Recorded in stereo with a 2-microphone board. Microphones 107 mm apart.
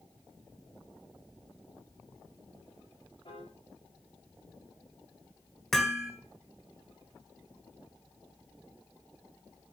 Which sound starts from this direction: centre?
Hammering, at 5.7 s.